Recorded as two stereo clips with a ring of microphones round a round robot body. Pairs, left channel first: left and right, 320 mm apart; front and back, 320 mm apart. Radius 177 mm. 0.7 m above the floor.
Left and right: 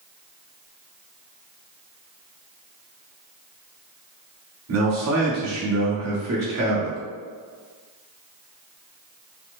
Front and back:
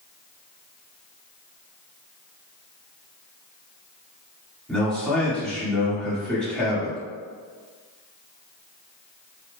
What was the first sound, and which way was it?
A man speaking, 85° right.